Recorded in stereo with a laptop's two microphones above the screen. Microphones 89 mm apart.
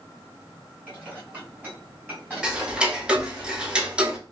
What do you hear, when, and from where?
0.9 s dishes clattering: 20° right (ahead or behind), 2.5 m
2.4 s ticking: 10° right (ahead or behind), 0.9 m